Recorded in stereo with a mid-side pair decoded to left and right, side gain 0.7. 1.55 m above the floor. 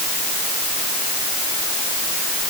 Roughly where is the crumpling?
I don't hear crumpling.